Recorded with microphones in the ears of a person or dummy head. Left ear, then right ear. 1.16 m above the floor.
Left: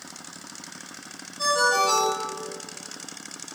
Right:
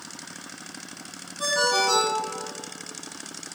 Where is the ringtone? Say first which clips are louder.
Left 1 dB; 50° left (ahead or behind), 1.1 m.